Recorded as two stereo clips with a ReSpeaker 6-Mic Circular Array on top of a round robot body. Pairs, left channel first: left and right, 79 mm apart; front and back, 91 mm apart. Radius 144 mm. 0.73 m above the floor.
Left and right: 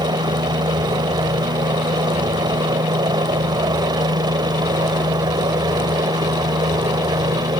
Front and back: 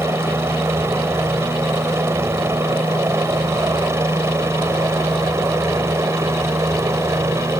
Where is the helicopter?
120° right.